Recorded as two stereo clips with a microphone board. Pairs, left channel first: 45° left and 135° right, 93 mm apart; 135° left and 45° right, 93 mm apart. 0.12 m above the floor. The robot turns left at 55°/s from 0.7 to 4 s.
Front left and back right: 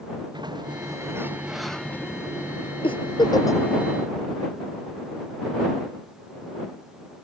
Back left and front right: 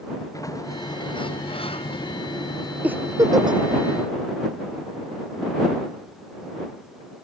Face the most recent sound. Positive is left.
turn(degrees=-35)